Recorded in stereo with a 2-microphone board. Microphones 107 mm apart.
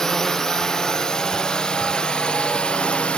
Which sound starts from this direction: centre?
A drone, at 0.0 s.